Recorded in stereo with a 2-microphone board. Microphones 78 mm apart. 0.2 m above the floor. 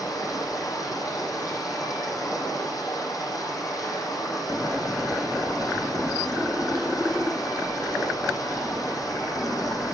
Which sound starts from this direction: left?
Running water, at 0.0 s.